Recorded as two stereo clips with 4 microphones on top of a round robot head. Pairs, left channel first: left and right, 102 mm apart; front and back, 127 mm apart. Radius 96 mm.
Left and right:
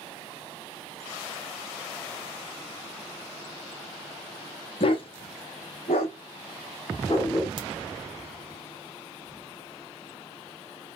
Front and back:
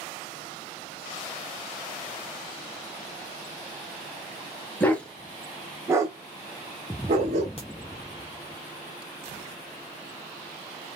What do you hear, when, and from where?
4.8 s a dog barking: 75° left, 1.0 m; by 7.5 s 165° left, 1.3 m
7.6 s a crack: 55° right, 1.0 m